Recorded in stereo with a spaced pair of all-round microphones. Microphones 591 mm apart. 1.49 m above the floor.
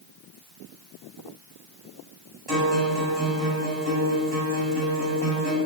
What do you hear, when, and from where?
2.5 s a guitar: 70° right (ahead or behind), 3.5 m